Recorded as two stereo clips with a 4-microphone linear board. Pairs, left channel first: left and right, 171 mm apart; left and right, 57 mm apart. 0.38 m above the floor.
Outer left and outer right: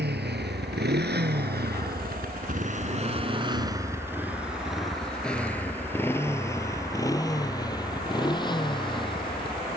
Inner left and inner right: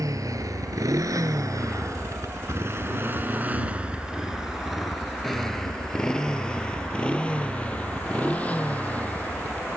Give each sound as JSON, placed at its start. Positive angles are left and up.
{"t": 0.0, "sound": "a motorcycle", "side_deg": -80}